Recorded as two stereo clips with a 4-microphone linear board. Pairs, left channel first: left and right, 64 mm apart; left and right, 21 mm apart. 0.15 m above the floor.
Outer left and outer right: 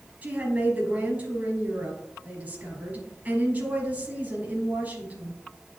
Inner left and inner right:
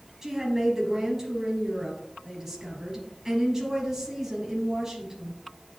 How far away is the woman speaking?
About 2.5 m.